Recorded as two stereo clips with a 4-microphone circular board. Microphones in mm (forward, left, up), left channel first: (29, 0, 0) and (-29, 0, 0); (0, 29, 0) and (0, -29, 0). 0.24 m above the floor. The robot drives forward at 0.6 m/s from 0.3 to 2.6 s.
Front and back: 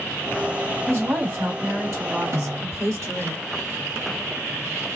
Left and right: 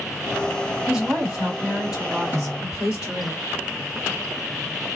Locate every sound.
0.9 s a woman speaking: 165° right, 1.9 m; by 3.3 s 170° right, 3 m
2.3 s a snare drum: 150° right, 2 m; by 2.8 s 155° right, 2.5 m